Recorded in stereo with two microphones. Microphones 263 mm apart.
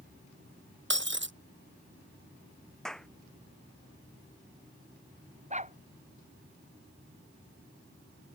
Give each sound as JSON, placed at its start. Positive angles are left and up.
{"t": 0.9, "sound": "breaking glass", "side_deg": -45}
{"t": 2.9, "sound": "a clap", "side_deg": 0}
{"t": 5.5, "sound": "a dog barking", "side_deg": -25}